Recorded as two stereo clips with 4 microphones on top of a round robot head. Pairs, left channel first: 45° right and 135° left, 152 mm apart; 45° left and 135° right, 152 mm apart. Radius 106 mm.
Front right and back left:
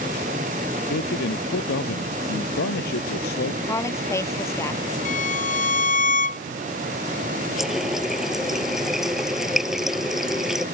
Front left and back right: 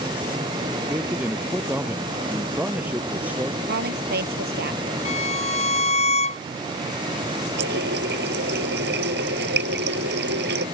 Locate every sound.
0.9 s a man speaking: 55° right
3.7 s a woman speaking: 115° right
5.0 s a violin: 5° right
7.6 s a running tap: 135° right